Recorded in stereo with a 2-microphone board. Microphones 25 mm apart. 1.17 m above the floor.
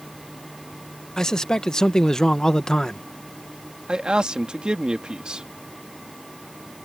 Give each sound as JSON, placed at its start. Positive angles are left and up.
{"t": 1.2, "sound": "a man speaking", "side_deg": 25}
{"t": 3.9, "sound": "a man speaking", "side_deg": -35}